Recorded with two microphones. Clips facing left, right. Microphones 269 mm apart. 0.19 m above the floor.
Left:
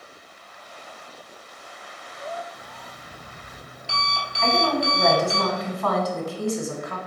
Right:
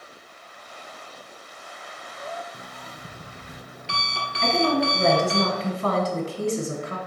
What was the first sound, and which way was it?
An alarm clock, 70° right (ahead or behind).